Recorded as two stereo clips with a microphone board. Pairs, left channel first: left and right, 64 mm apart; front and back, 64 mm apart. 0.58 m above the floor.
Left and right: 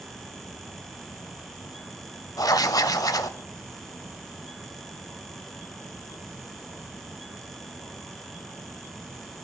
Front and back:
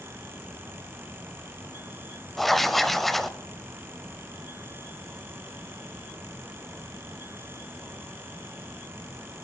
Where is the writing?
85° left, 0.7 m.